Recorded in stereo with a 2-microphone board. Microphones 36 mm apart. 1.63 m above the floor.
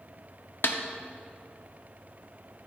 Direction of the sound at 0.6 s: 65° left (ahead or behind).